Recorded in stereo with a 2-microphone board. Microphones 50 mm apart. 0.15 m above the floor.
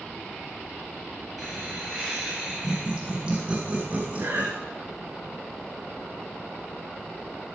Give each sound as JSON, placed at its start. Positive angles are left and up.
{"t": 1.4, "sound": "laughter", "side_deg": -5, "distance_m": 3.0}
{"t": 4.2, "sound": "breathing", "side_deg": -50, "distance_m": 3.0}